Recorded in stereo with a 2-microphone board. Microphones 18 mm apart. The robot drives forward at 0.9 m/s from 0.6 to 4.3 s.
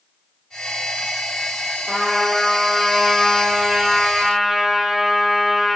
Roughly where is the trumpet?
Right.